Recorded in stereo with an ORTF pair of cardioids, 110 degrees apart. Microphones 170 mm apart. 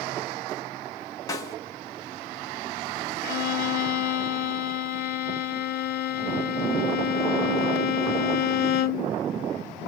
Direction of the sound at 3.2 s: 55° left.